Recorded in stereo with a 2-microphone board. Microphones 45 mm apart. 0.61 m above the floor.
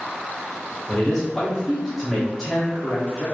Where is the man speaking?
Centre (ahead or behind), 1.1 m.